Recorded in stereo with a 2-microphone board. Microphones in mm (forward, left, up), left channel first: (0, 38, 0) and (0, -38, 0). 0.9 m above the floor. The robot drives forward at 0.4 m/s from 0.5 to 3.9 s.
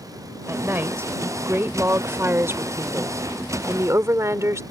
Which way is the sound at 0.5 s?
30° right (ahead or behind).